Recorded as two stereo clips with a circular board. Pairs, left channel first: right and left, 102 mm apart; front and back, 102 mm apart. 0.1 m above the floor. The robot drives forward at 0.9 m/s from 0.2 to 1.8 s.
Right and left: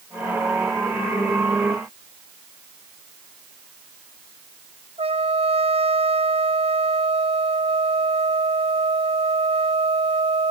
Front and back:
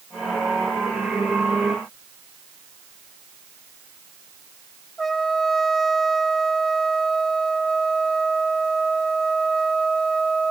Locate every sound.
5.0 s a trumpet: 85° left